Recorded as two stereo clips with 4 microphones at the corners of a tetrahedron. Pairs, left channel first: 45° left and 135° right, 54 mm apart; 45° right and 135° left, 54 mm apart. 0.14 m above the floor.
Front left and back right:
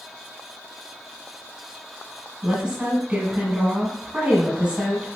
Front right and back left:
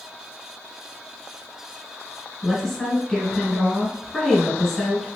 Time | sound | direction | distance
2.4 | a woman speaking | 125° right | 1.3 m